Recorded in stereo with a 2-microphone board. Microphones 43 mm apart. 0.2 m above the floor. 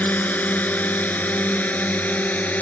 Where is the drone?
40° left (ahead or behind).